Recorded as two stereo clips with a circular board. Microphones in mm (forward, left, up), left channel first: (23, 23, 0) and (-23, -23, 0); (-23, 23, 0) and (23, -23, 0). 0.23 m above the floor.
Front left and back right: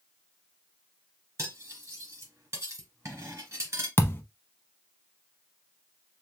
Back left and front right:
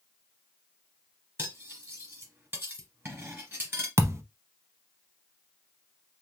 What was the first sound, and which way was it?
Cutlery clinking, 95° right.